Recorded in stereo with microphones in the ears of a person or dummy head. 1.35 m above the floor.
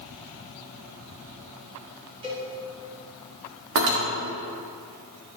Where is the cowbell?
25° right (ahead or behind), 2.0 m.